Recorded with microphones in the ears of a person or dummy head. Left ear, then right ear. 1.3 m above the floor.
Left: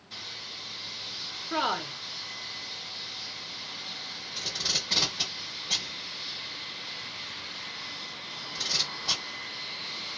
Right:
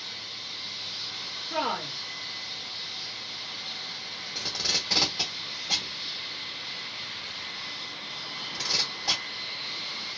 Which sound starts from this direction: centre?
Tape being pulled, at 4.3 s.